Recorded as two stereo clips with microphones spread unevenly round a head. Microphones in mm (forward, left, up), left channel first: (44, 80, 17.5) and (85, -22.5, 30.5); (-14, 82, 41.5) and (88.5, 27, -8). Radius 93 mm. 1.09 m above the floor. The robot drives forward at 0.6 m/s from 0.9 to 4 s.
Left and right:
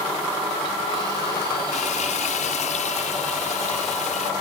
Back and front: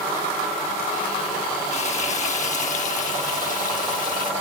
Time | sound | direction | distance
1.7 | frying | 120° left | ?